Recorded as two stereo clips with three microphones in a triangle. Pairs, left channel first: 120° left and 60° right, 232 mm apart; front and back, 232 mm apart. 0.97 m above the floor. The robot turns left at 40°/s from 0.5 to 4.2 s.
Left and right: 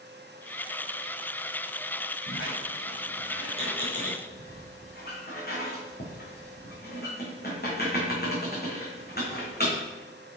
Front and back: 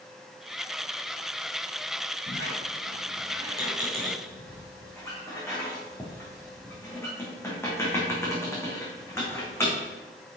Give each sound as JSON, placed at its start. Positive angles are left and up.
{"t": 2.3, "sound": "a squeak", "azimuth_deg": 155, "distance_m": 3.0}